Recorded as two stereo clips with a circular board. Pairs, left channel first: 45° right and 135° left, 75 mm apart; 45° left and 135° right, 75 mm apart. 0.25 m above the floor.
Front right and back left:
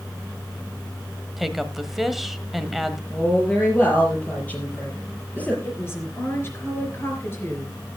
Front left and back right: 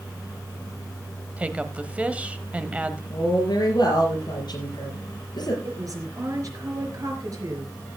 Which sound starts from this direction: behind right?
A woman speaking, at 1.4 s.